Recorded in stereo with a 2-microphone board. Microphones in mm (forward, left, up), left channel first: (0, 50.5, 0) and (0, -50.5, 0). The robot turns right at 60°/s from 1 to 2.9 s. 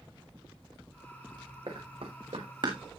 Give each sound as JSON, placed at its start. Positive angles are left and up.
{"t": 1.7, "sound": "running footsteps", "side_deg": -50, "distance_m": 5.0}